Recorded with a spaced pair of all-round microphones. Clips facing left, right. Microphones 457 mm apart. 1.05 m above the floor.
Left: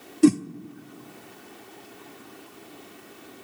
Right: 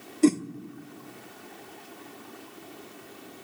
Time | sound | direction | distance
0.2 | a whoosh | 30° left (ahead or behind) | 0.6 m